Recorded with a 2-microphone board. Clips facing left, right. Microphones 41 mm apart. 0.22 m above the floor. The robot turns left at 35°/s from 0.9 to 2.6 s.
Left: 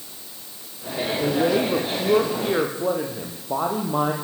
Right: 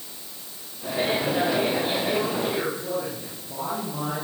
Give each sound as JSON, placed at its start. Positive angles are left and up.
{"t": 1.2, "sound": "a woman speaking", "azimuth_deg": 105, "distance_m": 7.5}